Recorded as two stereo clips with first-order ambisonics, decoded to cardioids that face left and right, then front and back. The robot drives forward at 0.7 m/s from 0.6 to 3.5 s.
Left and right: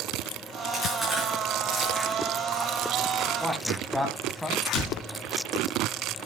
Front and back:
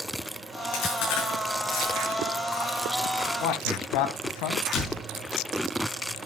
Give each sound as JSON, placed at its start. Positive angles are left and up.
{"t": 0.7, "sound": "chewing", "azimuth_deg": 0, "distance_m": 7.0}
{"t": 3.4, "sound": "a man speaking", "azimuth_deg": 0, "distance_m": 3.0}
{"t": 4.7, "sound": "a door slam", "azimuth_deg": 50, "distance_m": 4.0}